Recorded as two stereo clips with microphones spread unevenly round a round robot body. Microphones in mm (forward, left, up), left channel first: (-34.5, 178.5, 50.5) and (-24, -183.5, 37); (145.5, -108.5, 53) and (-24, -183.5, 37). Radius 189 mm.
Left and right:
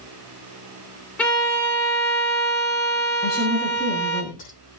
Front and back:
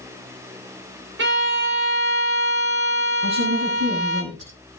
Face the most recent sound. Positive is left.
turn(degrees=160)